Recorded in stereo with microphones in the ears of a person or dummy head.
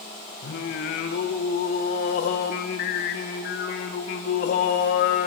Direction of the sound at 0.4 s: 50° left (ahead or behind).